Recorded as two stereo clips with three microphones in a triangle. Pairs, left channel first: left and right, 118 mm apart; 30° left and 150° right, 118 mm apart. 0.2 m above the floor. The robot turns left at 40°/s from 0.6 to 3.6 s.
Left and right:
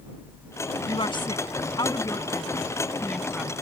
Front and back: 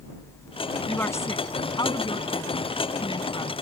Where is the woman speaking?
95° left; by 3.5 s 10° right.